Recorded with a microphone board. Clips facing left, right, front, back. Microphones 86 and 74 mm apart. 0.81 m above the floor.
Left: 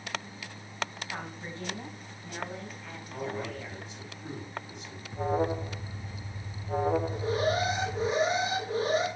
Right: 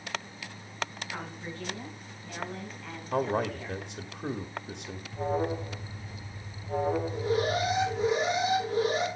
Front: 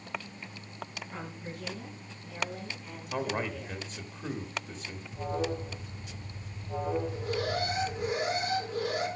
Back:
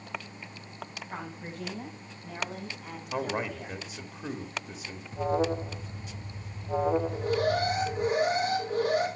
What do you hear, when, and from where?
1.1 s a woman speaking: 150° left, 6.5 m; by 3.8 s straight behind, 5 m
3.1 s a man speaking: 105° right, 1.2 m
5.1 s an alarm: 155° left, 1.0 m
7.1 s an alarm: 145° left, 5.5 m